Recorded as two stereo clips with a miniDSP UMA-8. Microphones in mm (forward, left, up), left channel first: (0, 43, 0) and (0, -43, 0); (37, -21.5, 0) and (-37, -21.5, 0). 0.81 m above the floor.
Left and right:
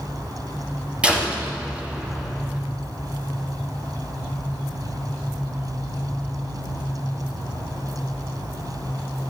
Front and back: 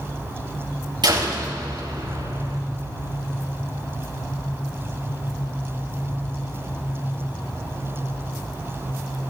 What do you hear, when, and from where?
1.0 s a door slam: 165° right, 4.5 m